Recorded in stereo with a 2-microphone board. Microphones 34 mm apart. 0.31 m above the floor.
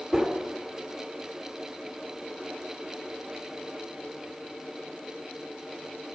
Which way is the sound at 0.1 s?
25° right (ahead or behind).